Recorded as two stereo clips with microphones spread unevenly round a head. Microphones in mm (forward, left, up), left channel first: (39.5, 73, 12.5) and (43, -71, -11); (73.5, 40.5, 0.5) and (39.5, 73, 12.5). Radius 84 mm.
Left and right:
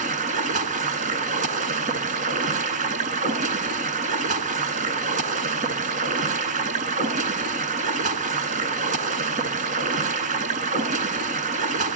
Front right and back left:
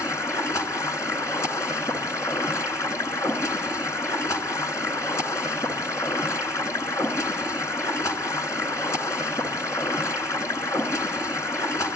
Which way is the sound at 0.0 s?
65° right.